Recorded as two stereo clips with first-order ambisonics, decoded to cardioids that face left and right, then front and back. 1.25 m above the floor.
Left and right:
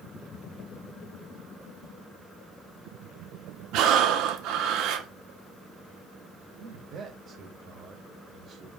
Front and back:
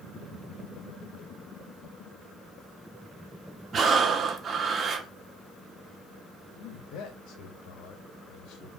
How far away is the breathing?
About 1.2 m.